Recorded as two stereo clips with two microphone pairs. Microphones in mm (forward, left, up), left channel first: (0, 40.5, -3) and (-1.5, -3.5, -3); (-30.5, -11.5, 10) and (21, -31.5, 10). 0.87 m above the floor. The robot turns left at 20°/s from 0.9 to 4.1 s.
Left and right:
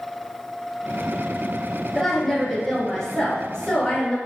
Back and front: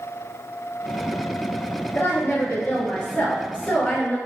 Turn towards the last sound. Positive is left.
turn(degrees=130)